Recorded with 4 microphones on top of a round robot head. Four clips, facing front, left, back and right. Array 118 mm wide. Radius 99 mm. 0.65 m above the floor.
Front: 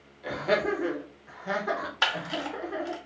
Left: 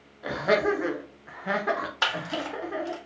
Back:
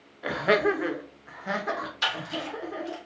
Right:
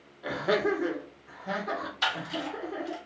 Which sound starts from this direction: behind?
Laughter, at 0.2 s.